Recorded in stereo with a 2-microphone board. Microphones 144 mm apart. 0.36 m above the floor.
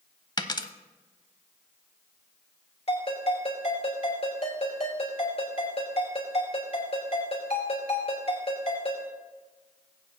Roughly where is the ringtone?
Left.